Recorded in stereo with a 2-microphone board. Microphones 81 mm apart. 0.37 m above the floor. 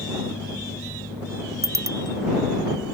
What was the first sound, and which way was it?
A bicycle bell, 40° right (ahead or behind).